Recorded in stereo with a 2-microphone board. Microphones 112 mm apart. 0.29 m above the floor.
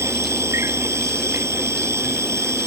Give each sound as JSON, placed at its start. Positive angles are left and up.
{"t": 0.0, "sound": "an insect", "side_deg": -25}